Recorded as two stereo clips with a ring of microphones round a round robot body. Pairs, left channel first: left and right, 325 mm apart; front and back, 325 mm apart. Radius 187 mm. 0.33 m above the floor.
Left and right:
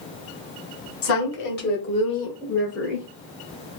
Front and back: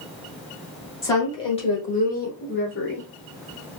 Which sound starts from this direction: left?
A woman speaking, at 1.0 s.